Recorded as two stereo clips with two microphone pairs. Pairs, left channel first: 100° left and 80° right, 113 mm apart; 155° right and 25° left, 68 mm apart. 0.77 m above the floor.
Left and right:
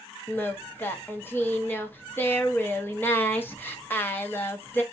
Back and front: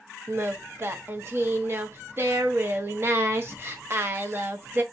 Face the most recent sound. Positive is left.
turn(degrees=40)